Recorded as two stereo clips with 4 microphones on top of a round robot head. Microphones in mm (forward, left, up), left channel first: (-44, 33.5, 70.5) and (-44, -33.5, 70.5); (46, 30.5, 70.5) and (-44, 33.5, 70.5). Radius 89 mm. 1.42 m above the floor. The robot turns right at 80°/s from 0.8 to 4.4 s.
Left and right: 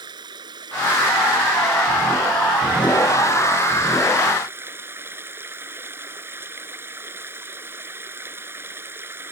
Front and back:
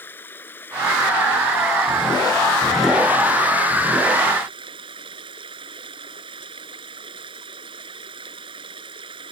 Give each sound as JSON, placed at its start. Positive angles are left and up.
{"t": 0.0, "sound": "running water", "azimuth_deg": -75}